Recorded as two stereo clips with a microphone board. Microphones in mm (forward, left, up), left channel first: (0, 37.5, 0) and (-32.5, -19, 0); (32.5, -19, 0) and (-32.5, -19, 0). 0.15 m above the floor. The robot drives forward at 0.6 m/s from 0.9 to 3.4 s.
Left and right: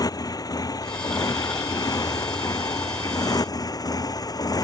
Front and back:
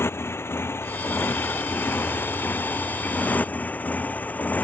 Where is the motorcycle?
50° left; by 4.7 s 65° left.